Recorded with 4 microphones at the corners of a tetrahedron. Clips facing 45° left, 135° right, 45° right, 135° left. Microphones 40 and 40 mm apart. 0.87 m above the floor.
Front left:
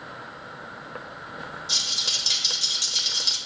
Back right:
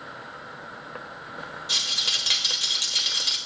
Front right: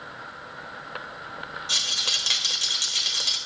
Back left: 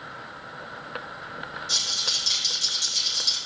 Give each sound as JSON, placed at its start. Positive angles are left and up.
{"t": 1.7, "sound": "a rattle", "azimuth_deg": -80, "distance_m": 1.3}